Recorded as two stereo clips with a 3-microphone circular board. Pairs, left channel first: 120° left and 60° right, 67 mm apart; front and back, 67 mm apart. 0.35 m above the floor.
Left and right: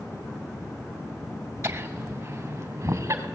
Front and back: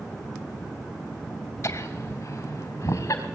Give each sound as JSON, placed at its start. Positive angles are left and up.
{"t": 1.6, "sound": "laughter", "azimuth_deg": -35, "distance_m": 2.0}